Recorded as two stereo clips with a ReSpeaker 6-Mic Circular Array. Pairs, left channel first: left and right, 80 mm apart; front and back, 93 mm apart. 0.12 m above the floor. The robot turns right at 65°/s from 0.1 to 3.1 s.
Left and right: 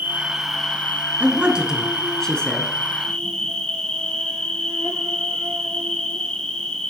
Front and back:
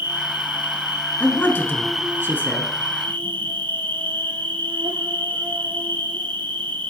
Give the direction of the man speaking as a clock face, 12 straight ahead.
2 o'clock.